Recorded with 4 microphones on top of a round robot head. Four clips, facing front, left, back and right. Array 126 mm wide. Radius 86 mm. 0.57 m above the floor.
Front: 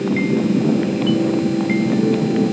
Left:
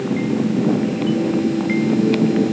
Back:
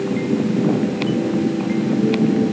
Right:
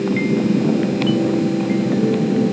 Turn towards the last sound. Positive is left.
No sound to turn to.